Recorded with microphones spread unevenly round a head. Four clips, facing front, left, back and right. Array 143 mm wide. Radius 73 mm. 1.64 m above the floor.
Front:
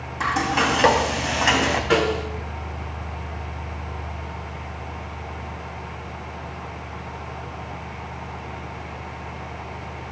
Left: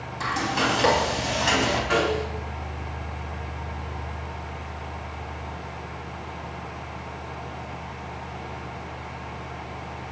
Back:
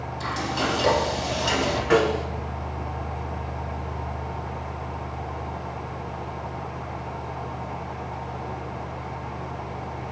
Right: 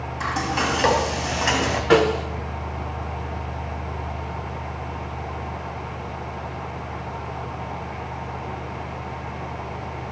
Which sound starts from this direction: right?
A snare drum, at 1.9 s.